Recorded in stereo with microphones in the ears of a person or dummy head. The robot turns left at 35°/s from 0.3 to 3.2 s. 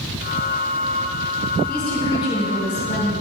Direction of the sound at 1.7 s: Straight behind.